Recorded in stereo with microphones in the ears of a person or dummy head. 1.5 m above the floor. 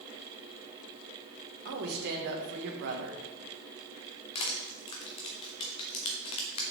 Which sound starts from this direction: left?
Crushing, at 4.3 s.